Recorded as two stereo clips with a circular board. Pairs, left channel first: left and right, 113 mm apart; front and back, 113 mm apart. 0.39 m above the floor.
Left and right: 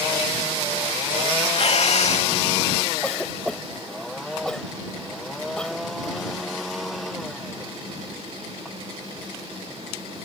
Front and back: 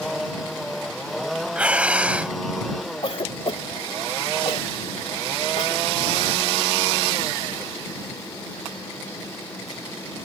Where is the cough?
10° left.